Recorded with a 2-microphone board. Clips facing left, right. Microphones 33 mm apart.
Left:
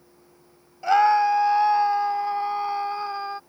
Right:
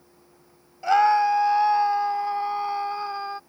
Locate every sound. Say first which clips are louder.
0.8 s a scream: left 1 dB; centre (ahead or behind)